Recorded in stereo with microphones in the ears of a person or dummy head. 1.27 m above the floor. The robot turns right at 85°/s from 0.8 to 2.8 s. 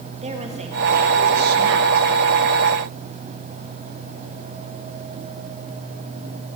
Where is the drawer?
No drawer in this recording.